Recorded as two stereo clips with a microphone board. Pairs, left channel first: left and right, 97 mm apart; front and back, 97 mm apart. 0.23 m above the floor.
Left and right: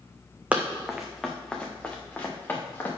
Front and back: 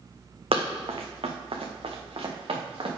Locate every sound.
0.5 s running footsteps: 165° right, 1.0 m; by 2.9 s 155° left, 2 m